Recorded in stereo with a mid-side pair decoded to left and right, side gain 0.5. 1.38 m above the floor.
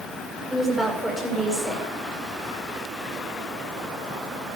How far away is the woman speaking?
About 8 m.